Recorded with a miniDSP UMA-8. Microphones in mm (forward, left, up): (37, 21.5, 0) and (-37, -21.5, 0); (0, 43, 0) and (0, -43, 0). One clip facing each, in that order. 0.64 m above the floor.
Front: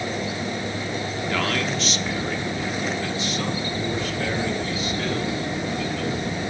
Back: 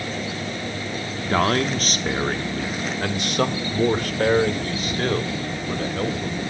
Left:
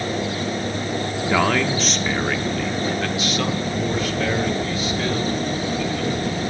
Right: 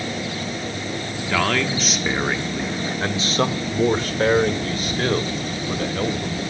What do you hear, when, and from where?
1.2 s a man speaking: 160° left, 1.1 m; by 6.4 s 115° right, 3 m